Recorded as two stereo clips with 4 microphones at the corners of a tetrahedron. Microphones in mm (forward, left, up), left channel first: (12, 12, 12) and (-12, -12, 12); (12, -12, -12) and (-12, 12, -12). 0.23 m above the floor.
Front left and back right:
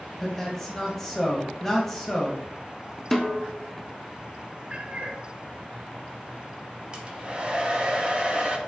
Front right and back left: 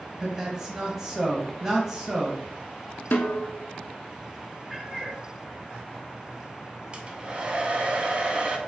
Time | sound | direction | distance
0.2 | a man speaking | 115° left | 1.1 m
3.1 | a snare drum | 40° right | 0.6 m
4.7 | a cat meowing | 155° right | 0.8 m
6.9 | a hair dryer | straight behind | 0.7 m